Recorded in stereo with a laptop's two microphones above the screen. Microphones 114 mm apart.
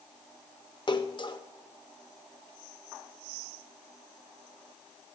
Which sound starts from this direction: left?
A splash, at 0.9 s.